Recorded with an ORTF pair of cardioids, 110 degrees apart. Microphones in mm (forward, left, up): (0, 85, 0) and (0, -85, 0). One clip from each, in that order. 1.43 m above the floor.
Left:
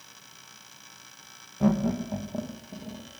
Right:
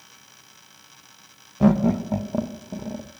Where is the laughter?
40° right, 1.2 m; by 3.1 s 55° right, 1.9 m.